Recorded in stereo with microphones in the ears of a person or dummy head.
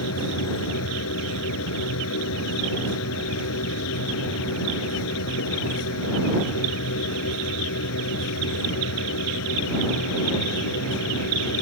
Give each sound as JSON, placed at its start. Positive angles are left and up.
{"t": 0.0, "sound": "a machine running", "side_deg": 75}